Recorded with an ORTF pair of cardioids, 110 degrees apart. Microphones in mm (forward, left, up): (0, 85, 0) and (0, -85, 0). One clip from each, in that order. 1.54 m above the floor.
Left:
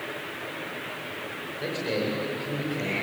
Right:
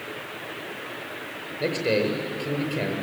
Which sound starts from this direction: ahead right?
A man speaking, at 1.6 s.